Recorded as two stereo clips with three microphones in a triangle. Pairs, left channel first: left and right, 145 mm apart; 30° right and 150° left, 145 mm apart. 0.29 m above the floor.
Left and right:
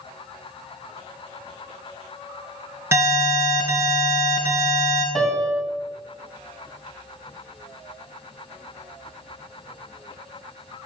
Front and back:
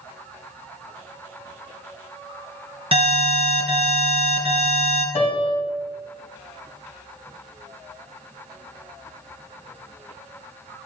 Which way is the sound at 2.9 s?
160° right.